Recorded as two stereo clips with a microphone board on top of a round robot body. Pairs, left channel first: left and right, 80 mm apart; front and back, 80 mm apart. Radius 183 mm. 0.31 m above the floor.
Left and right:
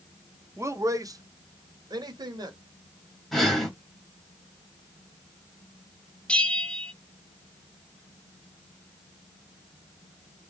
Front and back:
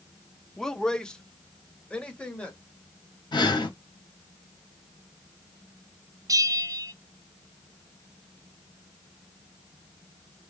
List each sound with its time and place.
0.6 s a man speaking: 80° right, 1.0 m; by 2.6 s 75° right, 2 m
3.3 s breathing: straight ahead, 2 m
6.3 s a bell: 165° left, 0.8 m